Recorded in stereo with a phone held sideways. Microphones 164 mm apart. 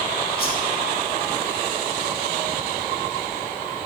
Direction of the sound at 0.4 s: 65° left (ahead or behind).